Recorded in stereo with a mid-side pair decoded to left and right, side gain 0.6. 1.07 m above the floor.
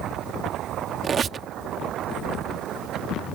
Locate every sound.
1.0 s a squeak: 35° right